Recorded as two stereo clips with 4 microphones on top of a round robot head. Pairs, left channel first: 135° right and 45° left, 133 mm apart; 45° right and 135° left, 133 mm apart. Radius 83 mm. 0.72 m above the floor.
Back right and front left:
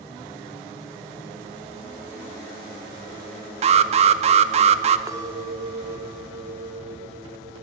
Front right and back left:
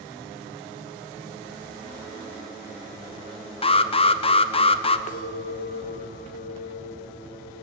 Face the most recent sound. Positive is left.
turn(degrees=-20)